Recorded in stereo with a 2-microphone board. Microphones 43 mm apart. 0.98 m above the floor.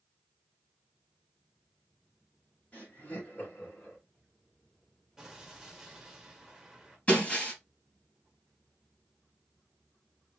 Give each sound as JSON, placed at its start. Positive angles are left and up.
{"t": 2.7, "sound": "laughter", "side_deg": 30, "distance_m": 3.0}
{"t": 5.2, "sound": "an explosion", "side_deg": -5, "distance_m": 1.9}
{"t": 7.1, "sound": "breaking glass", "side_deg": 30, "distance_m": 3.0}